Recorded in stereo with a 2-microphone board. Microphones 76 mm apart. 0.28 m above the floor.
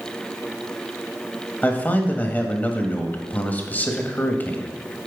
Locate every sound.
1.6 s a man speaking: 25° left (ahead or behind), 1.4 m